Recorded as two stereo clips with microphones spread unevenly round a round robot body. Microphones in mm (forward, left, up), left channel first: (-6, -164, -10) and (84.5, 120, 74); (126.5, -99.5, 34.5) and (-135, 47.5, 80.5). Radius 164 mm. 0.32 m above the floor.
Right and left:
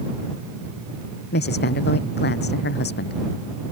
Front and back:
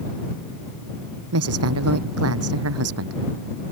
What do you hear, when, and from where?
1.3 s a woman speaking: 165° right